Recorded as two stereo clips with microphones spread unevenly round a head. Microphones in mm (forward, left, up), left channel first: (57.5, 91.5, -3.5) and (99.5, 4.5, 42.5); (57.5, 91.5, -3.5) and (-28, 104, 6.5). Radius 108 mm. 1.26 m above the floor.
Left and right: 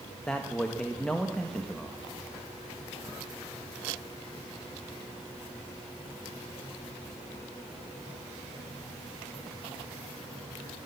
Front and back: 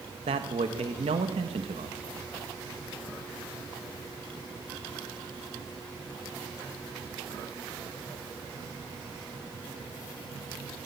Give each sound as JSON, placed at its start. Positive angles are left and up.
{"t": 0.3, "sound": "a man speaking", "azimuth_deg": -155, "distance_m": 1.0}